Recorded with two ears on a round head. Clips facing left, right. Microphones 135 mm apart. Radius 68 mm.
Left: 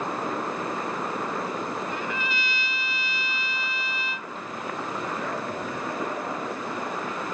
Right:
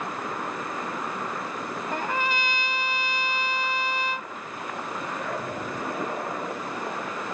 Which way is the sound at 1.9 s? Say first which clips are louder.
Right 3 dB; 40° right (ahead or behind).